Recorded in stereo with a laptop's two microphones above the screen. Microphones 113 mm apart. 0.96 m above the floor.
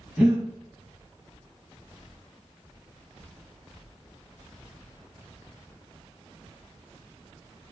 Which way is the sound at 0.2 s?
5° right (ahead or behind).